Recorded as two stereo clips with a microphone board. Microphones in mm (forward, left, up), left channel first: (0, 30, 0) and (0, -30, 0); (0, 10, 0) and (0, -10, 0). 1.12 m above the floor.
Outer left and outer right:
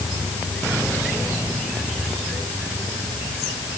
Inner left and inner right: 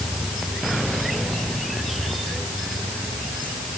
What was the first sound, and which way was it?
Only background noise.